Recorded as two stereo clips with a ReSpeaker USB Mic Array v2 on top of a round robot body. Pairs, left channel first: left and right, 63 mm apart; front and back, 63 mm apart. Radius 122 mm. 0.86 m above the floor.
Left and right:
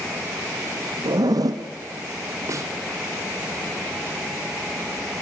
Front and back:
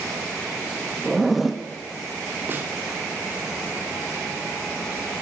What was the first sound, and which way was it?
A zipper, 90° right.